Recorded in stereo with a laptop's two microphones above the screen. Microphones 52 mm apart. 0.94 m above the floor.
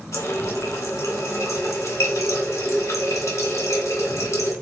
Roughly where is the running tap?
Left.